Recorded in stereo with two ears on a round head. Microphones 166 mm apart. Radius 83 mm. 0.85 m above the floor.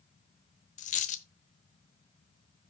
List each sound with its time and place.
0.8 s a dropped coin: 40° left (ahead or behind), 1.0 m